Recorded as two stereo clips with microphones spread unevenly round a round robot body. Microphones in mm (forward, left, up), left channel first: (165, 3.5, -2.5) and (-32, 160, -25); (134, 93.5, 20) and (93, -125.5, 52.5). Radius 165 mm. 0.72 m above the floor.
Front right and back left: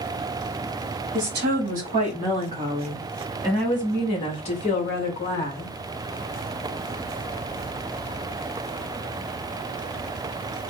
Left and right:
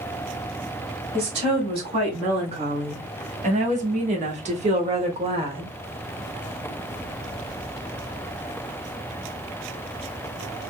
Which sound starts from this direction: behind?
A woman speaking, at 1.1 s.